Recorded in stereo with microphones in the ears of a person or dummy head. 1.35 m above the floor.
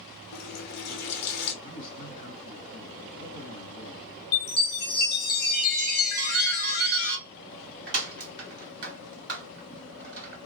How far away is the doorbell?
About 1.4 m.